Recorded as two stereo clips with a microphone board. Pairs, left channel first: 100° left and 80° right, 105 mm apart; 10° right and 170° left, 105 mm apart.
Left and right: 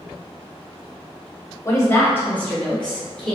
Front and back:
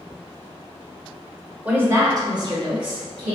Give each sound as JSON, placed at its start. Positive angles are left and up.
{"t": 1.6, "sound": "a woman speaking", "azimuth_deg": 105, "distance_m": 0.9}